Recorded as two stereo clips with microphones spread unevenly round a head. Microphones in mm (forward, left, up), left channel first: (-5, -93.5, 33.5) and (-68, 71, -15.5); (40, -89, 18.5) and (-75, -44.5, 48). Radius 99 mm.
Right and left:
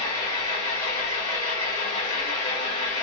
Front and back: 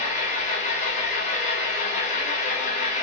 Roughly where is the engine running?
Ahead right.